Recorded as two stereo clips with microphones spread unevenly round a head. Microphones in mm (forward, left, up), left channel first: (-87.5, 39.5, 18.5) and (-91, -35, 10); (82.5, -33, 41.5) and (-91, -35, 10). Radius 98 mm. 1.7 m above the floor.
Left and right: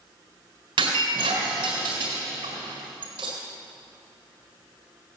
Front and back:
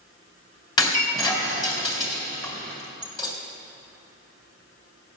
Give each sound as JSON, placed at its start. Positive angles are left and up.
{"t": 0.8, "sound": "breaking glass", "azimuth_deg": -60, "distance_m": 3.5}